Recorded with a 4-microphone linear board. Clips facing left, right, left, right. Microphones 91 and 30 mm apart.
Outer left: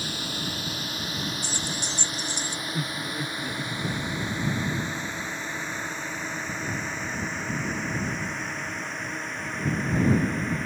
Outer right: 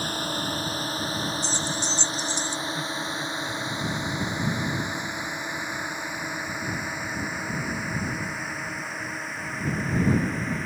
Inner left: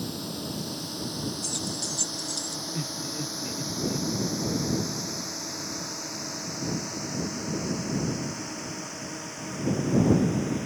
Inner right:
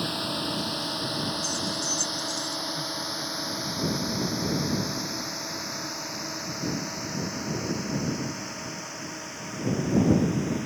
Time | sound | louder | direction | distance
0.0 | a drone | outer right 4 dB, inner right 5 dB | 40° right (ahead or behind) | ?
1.4 | keys jangling | outer right 4 dB, inner right 3 dB | 55° left (ahead or behind) | ?
2.7 | laughter | outer right 1 dB, inner right 1 dB | 60° left (ahead or behind) | ?